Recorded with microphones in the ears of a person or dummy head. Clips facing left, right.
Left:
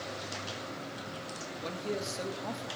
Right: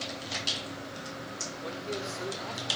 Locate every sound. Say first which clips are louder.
1.6 s a man speaking: left 1 dB; 65° left (ahead or behind), 4 m